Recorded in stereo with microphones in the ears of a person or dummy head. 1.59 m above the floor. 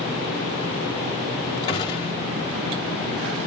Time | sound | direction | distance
1.7 | a gunshot | 20° left (ahead or behind) | 1.7 m